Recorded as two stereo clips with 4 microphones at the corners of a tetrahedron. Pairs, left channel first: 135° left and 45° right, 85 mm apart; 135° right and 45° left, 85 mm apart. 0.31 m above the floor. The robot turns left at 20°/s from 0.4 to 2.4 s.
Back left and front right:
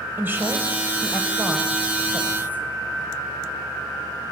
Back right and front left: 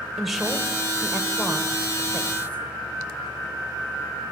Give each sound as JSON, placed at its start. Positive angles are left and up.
{"t": 0.2, "sound": "a woman speaking", "azimuth_deg": -40, "distance_m": 1.5}